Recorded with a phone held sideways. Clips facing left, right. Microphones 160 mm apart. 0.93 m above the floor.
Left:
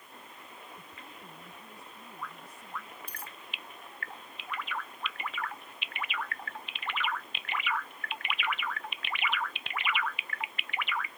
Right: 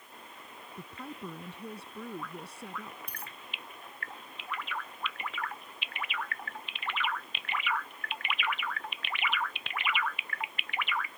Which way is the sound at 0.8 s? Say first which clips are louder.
Right 8 dB; 85° right.